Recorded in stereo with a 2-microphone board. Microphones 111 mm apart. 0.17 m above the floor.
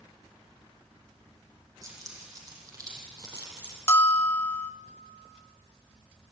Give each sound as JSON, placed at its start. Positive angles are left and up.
{"t": 1.8, "sound": "keys jangling", "side_deg": -30, "distance_m": 6.5}
{"t": 3.9, "sound": "a bell", "side_deg": 25, "distance_m": 0.6}